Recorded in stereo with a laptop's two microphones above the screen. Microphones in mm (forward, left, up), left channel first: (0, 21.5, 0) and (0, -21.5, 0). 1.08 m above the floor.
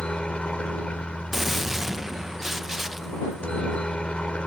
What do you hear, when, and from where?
0.0 s a helicopter: 25° left (ahead or behind)
1.3 s a gunshot: 10° right (ahead or behind)